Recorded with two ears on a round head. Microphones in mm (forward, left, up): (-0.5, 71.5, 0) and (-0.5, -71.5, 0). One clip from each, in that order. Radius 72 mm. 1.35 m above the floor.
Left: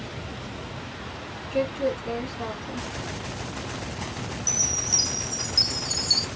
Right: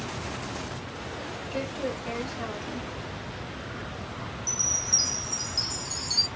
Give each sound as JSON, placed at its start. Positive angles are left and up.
{"t": 1.5, "sound": "a woman speaking", "side_deg": -20, "distance_m": 1.6}
{"t": 4.5, "sound": "a chime", "side_deg": 15, "distance_m": 0.9}